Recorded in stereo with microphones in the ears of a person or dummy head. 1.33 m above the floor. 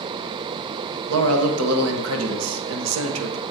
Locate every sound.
1.1 s a man speaking: 80° right, 1.0 m